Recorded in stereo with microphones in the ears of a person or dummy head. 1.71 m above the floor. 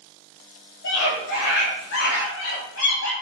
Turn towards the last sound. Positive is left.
turn(degrees=80)